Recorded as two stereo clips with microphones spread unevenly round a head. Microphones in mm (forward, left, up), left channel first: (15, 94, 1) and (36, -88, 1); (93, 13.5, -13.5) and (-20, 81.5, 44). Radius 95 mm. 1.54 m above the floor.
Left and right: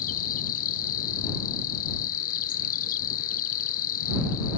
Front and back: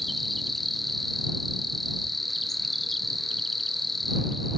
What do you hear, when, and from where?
0.0 s an insect: 55° left